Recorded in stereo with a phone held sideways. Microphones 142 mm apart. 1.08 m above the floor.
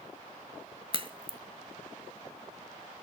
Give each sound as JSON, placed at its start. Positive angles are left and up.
{"t": 0.9, "sound": "a crack", "side_deg": -40, "distance_m": 1.4}